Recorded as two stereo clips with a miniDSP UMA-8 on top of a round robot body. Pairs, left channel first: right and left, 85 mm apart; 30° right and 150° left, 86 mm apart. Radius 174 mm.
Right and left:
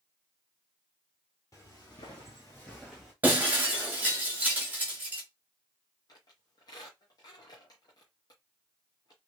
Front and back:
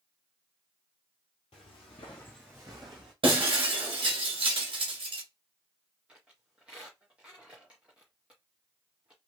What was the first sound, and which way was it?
Footsteps, 35° right.